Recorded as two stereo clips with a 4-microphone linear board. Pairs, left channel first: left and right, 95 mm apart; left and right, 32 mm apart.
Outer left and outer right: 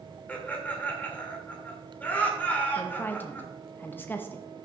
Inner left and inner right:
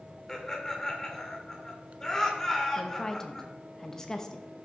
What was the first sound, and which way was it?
Laughter, 15° left (ahead or behind).